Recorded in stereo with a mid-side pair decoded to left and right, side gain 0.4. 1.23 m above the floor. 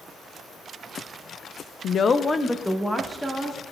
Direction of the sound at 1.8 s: 70° left.